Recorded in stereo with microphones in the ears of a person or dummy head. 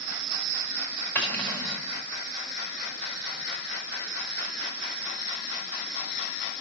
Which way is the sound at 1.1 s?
10° left (ahead or behind).